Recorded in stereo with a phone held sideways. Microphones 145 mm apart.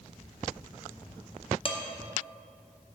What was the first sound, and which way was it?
Dishes clattering, 40° left (ahead or behind).